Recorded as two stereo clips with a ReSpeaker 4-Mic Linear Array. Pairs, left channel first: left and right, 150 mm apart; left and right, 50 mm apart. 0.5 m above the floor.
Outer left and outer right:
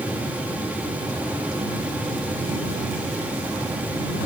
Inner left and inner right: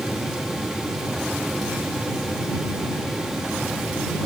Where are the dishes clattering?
I don't hear dishes clattering.